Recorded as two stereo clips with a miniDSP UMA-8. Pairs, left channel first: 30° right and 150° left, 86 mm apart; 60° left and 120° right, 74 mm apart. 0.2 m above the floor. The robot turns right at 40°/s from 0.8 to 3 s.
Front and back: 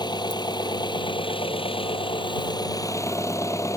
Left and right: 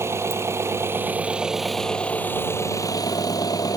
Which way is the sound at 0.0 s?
65° right.